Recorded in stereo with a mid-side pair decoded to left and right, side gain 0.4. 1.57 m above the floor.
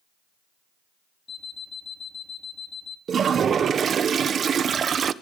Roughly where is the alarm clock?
Ahead left.